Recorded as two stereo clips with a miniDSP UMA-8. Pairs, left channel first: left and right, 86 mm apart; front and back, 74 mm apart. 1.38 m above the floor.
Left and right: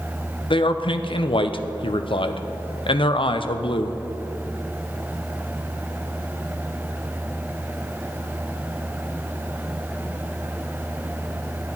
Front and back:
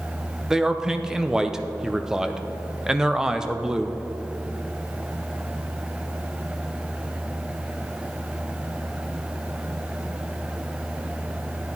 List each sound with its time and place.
0.5 s a man speaking: 100° left, 0.6 m